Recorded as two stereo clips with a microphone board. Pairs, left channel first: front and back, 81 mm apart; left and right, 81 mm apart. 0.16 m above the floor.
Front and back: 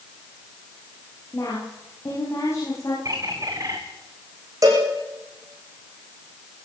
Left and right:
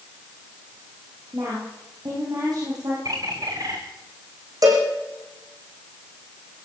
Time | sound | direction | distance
1.3 | a woman speaking | 55° right | 9.5 m
3.0 | a bird | 135° right | 4 m
4.6 | a cowbell | 135° right | 8.5 m